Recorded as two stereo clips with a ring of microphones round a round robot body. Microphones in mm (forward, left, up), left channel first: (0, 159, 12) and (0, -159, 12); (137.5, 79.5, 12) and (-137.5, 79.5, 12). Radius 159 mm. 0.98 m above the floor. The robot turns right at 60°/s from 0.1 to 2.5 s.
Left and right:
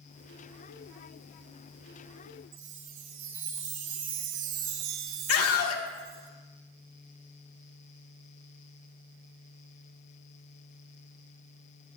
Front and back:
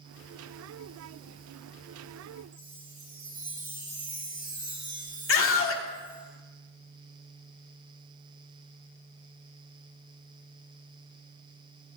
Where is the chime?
100° right, 2.5 m.